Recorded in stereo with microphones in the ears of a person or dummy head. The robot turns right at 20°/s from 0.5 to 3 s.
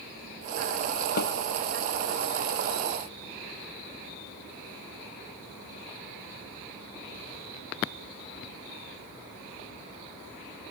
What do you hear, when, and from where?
1.2 s a snare drum: 60° left (ahead or behind); by 1.3 s 55° left (ahead or behind)